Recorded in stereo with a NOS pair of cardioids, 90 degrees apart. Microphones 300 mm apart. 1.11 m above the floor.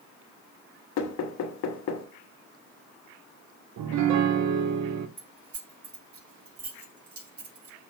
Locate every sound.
1.0 s knocking: 70° left, 1.1 m
3.8 s a piano: 65° right, 0.8 m
5.2 s keys jangling: 50° right, 3.5 m